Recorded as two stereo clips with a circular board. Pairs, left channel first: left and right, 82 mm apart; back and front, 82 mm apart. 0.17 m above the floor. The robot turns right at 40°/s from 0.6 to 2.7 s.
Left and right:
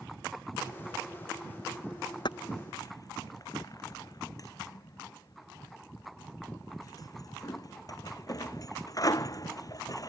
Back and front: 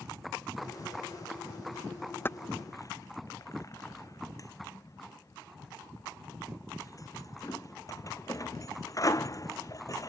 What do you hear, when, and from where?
2.2 s keys jangling: 115° left; by 10.1 s 135° left